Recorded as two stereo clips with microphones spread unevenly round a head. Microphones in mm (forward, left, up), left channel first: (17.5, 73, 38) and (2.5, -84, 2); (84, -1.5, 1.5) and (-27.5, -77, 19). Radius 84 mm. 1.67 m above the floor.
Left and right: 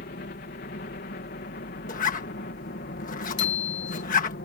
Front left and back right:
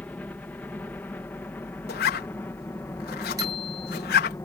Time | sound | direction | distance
0.0 | a helicopter | 115° left | ?
1.9 | a zipper | 45° left | ?
3.4 | a bicycle bell | 145° left | ?